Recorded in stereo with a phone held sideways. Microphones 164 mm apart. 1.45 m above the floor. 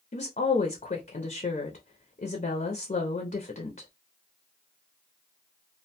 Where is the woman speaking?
55° left (ahead or behind), 0.5 m.